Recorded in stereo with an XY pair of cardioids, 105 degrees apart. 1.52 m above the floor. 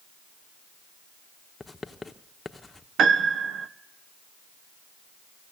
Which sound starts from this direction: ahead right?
A piano, at 3.0 s.